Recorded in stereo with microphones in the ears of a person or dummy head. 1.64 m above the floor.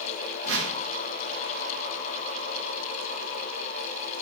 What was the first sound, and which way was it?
A whoosh, 75° right (ahead or behind).